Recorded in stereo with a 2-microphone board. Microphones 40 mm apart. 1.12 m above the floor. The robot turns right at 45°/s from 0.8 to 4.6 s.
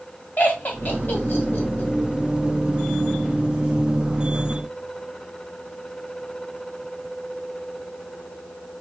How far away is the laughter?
About 1.6 m.